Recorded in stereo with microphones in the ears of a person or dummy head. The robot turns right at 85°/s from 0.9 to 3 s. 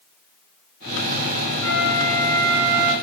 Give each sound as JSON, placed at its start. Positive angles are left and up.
{"t": 1.6, "sound": "a flute", "azimuth_deg": 175, "distance_m": 3.0}